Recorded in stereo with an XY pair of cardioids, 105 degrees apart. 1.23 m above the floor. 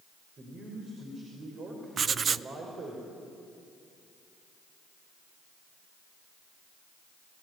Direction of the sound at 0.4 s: 45° right.